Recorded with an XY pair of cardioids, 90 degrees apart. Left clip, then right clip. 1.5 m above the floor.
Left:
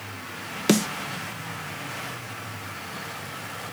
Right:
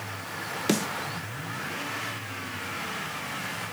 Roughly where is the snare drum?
Ahead left.